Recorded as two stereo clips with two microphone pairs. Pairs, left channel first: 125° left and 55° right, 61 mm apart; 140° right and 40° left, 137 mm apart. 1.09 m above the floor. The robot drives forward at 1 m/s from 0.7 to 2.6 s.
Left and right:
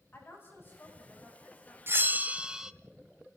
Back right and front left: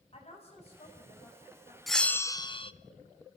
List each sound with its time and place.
0.1 s a woman speaking: 175° left, 9 m
1.9 s a bell: 50° right, 0.9 m; by 2.7 s 130° right, 0.9 m